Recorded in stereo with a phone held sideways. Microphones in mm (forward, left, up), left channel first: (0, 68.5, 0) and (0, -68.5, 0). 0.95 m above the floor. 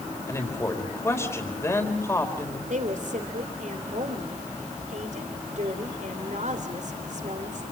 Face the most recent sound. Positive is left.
turn(degrees=-60)  # may be behind; listen again after turning